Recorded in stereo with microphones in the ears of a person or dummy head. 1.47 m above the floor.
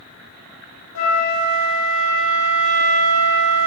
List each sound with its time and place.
0.9 s a flute: 80° left, 0.6 m